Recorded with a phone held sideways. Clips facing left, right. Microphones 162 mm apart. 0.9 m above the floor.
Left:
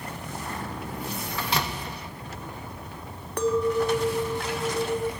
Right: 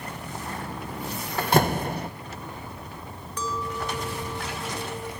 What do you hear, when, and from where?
1.4 s a door slam: 50° right (ahead or behind), 0.6 m
3.4 s a clink: 60° left (ahead or behind), 0.5 m